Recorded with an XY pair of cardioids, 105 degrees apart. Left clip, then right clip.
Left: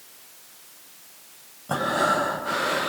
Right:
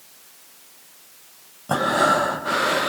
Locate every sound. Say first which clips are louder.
1.7 s breathing: right 4 dB; 30° right, 0.7 m